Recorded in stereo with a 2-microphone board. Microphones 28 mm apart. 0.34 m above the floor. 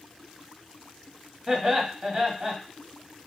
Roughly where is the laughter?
Right.